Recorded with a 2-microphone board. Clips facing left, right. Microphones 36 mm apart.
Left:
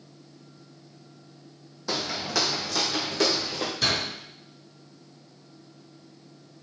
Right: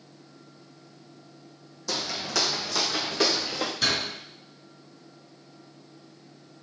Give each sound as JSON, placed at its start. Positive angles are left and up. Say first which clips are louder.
{"t": 1.9, "sound": "footsteps", "louder": "left 1 dB", "side_deg": 25, "distance_m": 1.1}
{"t": 3.8, "sound": "a door slam", "louder": "left 1 dB", "side_deg": -5, "distance_m": 3.5}